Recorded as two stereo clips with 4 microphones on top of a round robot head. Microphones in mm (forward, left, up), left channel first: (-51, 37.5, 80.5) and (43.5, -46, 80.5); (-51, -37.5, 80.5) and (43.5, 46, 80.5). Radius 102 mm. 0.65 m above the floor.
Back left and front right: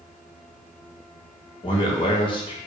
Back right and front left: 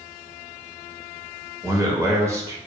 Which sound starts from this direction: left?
A man speaking, at 1.6 s.